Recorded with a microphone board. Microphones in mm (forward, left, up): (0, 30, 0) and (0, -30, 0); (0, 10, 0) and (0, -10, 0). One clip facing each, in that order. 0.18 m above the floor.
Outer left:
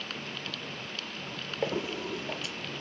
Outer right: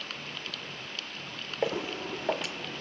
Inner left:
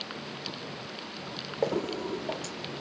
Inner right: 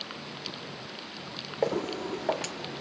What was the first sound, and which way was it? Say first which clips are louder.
Footsteps: outer right 1 dB, even; 15° right (ahead or behind).